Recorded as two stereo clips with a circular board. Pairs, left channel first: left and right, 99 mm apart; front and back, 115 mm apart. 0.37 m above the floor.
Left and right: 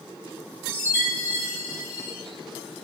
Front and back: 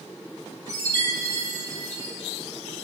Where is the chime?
140° right, 0.7 m.